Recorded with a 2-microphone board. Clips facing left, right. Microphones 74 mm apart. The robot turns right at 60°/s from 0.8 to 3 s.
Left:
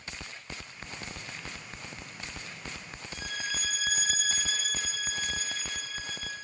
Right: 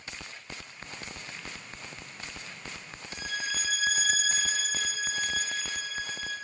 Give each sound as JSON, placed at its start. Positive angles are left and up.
{"t": 3.1, "sound": "a violin", "side_deg": -5, "distance_m": 2.0}